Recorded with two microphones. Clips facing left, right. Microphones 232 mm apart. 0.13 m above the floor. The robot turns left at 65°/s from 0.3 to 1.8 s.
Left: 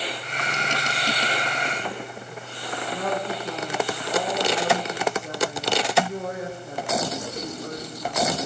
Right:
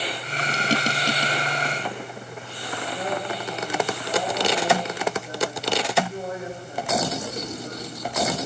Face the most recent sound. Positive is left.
turn(degrees=80)